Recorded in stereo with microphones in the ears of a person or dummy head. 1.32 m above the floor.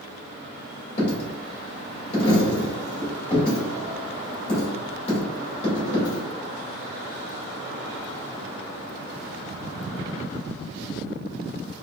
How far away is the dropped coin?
About 1.9 m.